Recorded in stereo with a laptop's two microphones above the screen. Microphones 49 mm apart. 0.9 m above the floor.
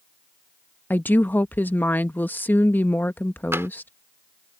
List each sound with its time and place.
0.9 s a woman speaking: 45° left (ahead or behind)
3.5 s tapping: 75° right (ahead or behind)